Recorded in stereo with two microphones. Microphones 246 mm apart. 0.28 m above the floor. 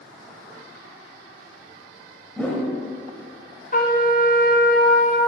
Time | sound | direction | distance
2.4 | a whoosh | 5° left (ahead or behind) | 1.0 m
3.7 | a trumpet | 40° left (ahead or behind) | 1.0 m